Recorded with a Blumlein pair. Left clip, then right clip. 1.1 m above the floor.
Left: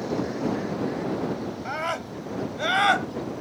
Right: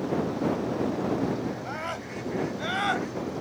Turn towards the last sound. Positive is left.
turn(degrees=25)